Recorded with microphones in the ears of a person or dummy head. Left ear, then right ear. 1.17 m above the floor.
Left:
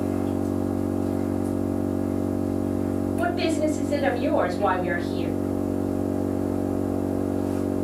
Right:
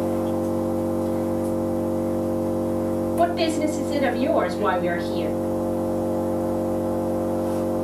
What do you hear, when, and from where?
0.0 s an engine running: 65° right (ahead or behind), 2 m
3.2 s a woman speaking: 55° right (ahead or behind), 2 m